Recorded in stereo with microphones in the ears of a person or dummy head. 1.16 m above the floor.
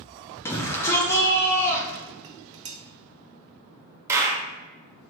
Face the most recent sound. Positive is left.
turn(degrees=-10)  # may be behind; listen again after turning